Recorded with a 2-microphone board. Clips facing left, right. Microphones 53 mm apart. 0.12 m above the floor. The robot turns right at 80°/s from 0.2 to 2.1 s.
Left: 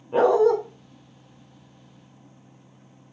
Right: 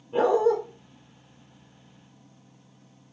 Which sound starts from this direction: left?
A dog barking, at 0.1 s.